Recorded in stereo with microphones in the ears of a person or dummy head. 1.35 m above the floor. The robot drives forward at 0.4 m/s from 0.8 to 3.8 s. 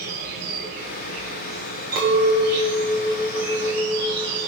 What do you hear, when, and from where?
0.0 s an insect: 65° right (ahead or behind), 5 m; by 4.5 s 75° right (ahead or behind), 5 m
1.9 s a clink: 50° right (ahead or behind), 2.5 m; by 4.5 s 40° right (ahead or behind), 3 m